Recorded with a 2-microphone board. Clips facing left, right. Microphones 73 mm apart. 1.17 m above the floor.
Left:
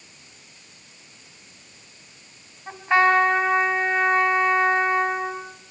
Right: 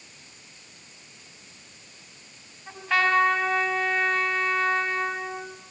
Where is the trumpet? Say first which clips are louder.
Left 5 dB; 25° left (ahead or behind), 4.5 m.